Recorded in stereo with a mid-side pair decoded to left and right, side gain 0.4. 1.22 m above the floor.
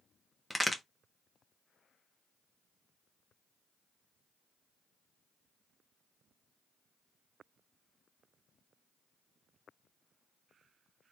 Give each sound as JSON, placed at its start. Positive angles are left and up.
{"t": 0.5, "sound": "a crack", "azimuth_deg": 10, "distance_m": 0.9}